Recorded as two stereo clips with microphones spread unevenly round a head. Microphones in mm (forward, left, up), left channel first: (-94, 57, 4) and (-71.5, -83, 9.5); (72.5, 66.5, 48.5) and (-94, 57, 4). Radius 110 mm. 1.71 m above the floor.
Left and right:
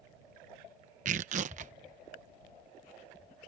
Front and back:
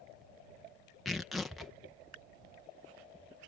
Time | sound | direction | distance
1.1 | tearing paper | 75° right | ?